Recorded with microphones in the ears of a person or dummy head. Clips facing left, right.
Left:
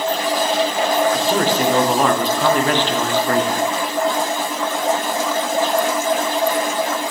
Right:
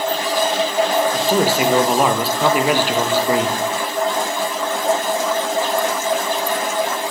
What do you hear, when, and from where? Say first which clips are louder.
1.1 s a man speaking: right 1 dB; 10° right (ahead or behind), 0.5 m